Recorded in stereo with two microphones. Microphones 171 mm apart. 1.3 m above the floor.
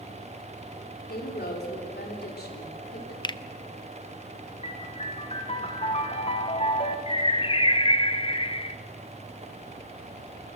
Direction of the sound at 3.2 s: 25° left (ahead or behind).